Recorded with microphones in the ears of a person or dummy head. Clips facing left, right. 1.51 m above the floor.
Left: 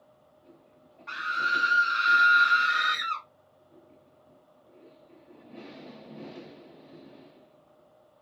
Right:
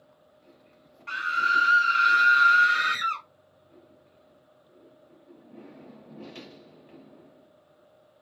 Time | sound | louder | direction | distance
1.1 | a scream | right 3 dB | 35° right (ahead or behind) | 0.5 m